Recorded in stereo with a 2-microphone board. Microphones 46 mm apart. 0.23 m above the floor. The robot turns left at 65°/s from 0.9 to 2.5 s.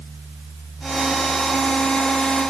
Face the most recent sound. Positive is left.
No sound to turn to.